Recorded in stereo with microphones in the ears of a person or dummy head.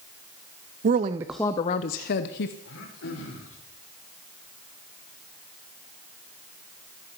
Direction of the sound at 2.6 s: 75° left (ahead or behind).